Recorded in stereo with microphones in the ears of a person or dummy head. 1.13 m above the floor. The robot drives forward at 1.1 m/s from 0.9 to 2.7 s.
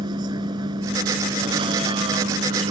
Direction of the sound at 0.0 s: 30° right (ahead or behind).